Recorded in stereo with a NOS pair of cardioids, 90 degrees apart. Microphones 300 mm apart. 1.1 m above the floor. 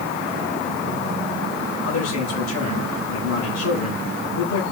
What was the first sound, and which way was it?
A man speaking, 70° left.